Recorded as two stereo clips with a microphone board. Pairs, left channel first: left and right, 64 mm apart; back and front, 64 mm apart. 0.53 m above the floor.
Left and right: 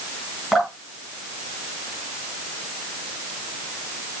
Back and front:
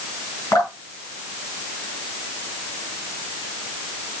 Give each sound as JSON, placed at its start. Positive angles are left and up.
{"t": 0.5, "sound": "dripping", "azimuth_deg": 175, "distance_m": 4.5}